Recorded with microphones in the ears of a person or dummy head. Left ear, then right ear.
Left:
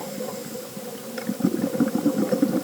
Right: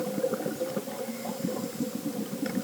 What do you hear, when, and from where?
Only background noise.